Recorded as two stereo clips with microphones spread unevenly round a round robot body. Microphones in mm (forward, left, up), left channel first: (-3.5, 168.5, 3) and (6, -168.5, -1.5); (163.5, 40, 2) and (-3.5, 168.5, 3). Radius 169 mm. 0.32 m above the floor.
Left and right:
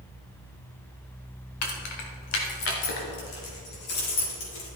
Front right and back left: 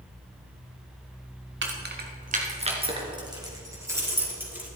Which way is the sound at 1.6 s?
110° left.